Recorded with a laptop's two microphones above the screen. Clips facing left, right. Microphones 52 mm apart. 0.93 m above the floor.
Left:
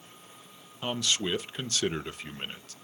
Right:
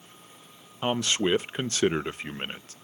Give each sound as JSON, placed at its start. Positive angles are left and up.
{"t": 0.8, "sound": "a man speaking", "side_deg": -30, "distance_m": 0.6}